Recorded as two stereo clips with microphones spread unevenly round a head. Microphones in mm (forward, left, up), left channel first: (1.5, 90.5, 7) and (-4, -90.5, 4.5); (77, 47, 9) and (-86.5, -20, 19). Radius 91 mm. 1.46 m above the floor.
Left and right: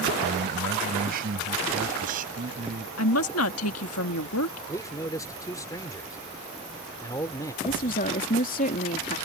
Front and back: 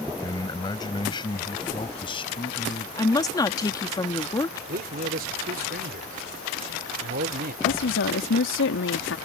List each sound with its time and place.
0.2 s a man speaking: 50° right; by 2.9 s 40° right
3.0 s a woman speaking: 95° left
4.7 s a man speaking: 160° left
7.6 s a woman speaking: 40° left